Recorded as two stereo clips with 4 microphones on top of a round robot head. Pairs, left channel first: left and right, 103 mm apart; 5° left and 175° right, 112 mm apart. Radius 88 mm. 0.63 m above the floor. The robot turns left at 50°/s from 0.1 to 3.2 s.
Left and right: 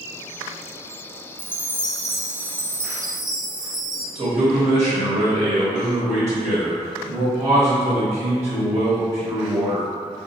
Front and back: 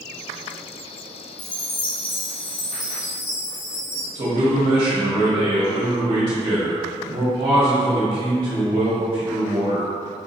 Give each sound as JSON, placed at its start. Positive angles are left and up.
{"t": 1.4, "sound": "a chime", "azimuth_deg": 35, "distance_m": 0.8}
{"t": 4.2, "sound": "a man speaking", "azimuth_deg": -145, "distance_m": 1.1}